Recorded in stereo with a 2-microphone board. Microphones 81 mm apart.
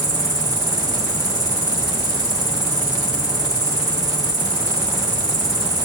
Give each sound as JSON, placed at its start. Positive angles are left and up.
{"t": 0.0, "sound": "an insect", "side_deg": -45, "distance_m": 1.4}